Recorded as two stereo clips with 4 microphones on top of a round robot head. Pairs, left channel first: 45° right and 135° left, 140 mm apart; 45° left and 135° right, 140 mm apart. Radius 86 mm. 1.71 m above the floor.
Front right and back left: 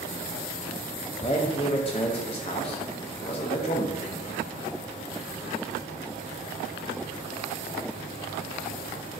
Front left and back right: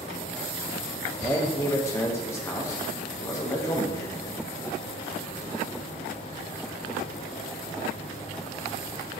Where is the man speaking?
15° right, 0.5 m.